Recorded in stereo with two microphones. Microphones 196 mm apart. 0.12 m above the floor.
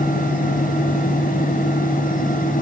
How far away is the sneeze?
I don't hear a sneeze.